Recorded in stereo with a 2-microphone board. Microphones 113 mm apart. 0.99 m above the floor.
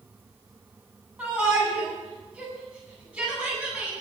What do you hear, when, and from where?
1.2 s a shout: 10° right (ahead or behind), 9 m